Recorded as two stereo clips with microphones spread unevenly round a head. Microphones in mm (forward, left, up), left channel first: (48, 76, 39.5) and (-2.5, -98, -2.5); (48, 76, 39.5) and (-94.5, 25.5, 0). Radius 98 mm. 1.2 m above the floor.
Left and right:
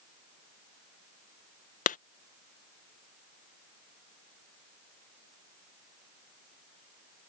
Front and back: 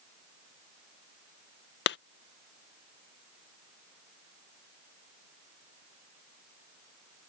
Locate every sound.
1.9 s a clap: 25° left